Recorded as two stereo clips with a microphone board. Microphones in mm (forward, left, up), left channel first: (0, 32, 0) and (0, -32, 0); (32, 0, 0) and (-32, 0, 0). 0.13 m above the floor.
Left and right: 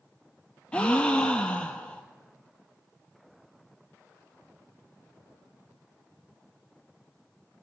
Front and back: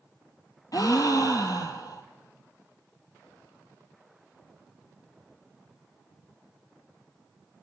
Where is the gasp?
15° left, 0.6 m.